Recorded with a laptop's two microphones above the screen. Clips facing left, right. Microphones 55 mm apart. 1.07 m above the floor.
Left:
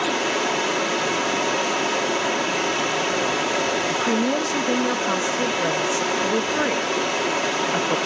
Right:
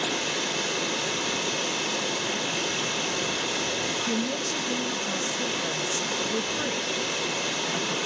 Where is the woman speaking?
60° left (ahead or behind), 0.7 m.